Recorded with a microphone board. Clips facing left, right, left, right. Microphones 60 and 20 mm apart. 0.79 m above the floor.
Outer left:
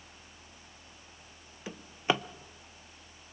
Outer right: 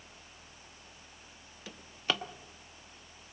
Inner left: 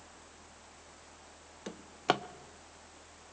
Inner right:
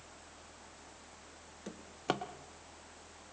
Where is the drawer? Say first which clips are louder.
Outer left 5 dB, inner left 5 dB; 20° left (ahead or behind), 0.7 m.